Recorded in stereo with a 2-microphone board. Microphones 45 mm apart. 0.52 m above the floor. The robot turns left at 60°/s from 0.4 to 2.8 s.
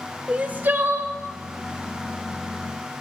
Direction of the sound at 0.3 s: 35° right.